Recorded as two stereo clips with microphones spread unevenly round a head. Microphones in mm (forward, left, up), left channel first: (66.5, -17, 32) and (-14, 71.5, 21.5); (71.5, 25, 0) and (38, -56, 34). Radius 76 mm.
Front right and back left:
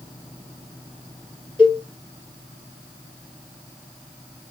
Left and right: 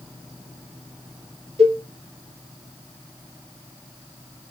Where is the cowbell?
105° right, 2.5 m.